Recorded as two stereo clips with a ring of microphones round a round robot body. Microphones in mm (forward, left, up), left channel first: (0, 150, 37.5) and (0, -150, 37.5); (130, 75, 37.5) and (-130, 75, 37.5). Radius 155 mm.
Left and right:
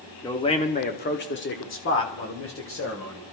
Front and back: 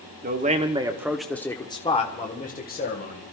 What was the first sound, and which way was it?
A man speaking, 160° left.